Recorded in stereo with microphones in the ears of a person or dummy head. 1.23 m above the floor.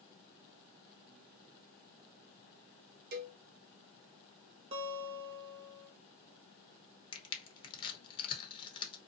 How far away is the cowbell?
About 0.7 m.